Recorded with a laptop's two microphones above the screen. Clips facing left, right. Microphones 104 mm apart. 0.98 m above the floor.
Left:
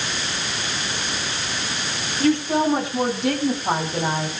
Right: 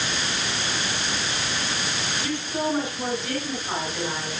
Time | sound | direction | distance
2.2 | a woman speaking | 85° left | 9 m